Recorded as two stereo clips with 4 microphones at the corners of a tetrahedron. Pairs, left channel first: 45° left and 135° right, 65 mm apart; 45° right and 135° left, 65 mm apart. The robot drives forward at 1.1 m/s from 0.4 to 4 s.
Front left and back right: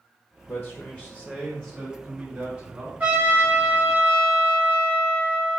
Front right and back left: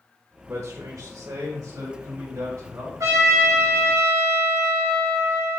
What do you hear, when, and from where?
0.5 s a man speaking: 80° left, 0.9 m; by 2.9 s 160° left, 2.5 m
3.0 s a trumpet: 165° left, 1.9 m; by 5.6 s 170° left, 3 m